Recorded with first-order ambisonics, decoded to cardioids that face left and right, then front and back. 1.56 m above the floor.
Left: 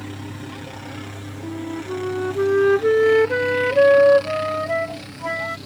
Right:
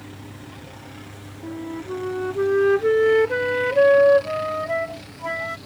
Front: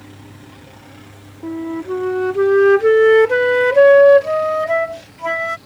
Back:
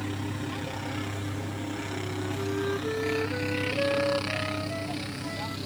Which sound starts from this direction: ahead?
A flute, at 1.4 s.